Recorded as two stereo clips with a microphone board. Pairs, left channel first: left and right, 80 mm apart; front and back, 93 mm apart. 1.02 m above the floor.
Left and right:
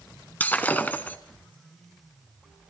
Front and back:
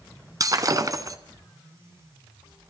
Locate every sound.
0.4 s breaking glass: 150° left, 1.2 m